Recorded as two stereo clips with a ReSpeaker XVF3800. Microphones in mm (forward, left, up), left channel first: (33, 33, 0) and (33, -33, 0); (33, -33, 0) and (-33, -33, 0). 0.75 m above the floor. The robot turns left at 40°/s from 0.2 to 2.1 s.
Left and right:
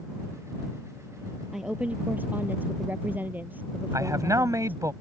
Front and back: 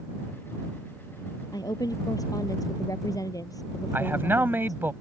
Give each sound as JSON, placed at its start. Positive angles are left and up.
{"t": 1.5, "sound": "a woman speaking", "azimuth_deg": -5}
{"t": 3.9, "sound": "a man speaking", "azimuth_deg": -125}